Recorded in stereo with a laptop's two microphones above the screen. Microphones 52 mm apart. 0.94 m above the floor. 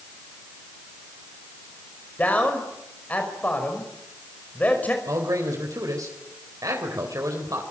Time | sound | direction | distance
2.2 | a man speaking | 30° left (ahead or behind) | 5 m
5.0 | a man speaking | 85° right | 4 m